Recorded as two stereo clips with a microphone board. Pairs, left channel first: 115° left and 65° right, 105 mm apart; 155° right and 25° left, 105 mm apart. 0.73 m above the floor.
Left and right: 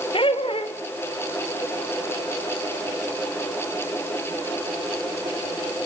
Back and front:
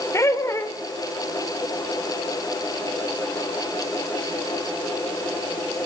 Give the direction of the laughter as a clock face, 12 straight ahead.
7 o'clock.